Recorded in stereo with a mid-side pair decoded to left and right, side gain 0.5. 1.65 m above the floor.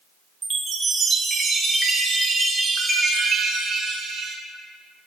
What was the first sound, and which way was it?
A chime, 30° right.